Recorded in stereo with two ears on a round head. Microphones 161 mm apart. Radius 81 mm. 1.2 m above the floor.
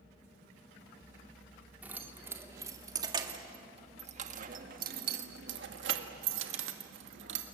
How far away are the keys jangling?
About 2.5 m.